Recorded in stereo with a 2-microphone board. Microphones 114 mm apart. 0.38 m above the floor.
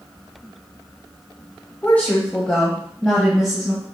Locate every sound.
1.8 s a woman speaking: 15° left (ahead or behind), 1.7 m; by 3.9 s 5° right (ahead or behind), 2.5 m